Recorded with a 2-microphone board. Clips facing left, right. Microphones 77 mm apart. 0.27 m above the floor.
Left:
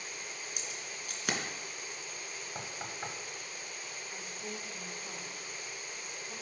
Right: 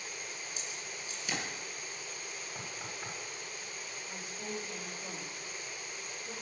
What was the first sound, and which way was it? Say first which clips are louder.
Keys jangling: even; 65° left (ahead or behind).